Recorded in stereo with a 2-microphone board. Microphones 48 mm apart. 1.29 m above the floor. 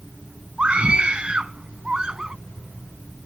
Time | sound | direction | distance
0.6 | a scream | 20° right (ahead or behind) | ?